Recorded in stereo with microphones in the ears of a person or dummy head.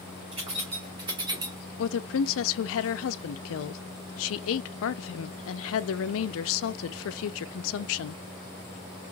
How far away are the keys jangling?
About 3 m.